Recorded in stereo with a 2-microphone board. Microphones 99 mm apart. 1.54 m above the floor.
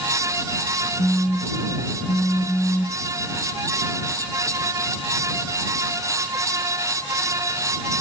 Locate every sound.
1.0 s a phone buzzing: 10° left (ahead or behind)